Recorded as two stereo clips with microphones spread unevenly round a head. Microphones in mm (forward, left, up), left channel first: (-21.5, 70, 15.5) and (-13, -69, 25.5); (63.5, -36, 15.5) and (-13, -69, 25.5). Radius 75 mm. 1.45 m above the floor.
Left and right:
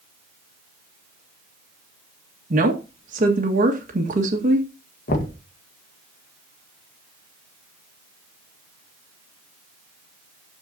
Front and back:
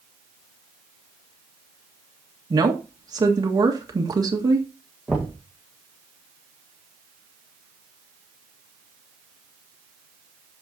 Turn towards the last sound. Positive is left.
turn(degrees=120)